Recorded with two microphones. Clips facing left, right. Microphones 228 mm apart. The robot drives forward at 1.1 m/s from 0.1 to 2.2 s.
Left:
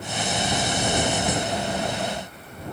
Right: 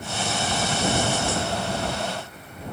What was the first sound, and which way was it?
Only background noise.